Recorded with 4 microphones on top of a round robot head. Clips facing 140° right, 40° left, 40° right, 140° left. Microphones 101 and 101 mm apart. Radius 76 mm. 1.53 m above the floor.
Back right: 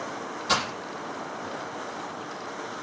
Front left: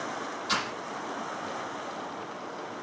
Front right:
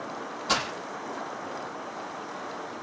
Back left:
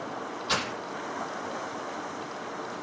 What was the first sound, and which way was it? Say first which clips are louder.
Breaking glass: back right 5 dB, front right 2 dB; 95° right.